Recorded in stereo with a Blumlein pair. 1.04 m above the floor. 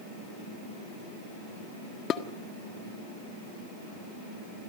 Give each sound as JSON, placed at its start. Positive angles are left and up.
{"t": 2.1, "sound": "dishes clattering", "azimuth_deg": 30, "distance_m": 1.4}